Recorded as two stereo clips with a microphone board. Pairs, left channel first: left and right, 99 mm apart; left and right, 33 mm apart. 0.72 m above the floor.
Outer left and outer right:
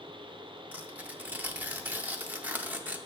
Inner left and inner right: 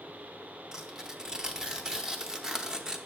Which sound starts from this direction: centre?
Tearing paper, at 0.7 s.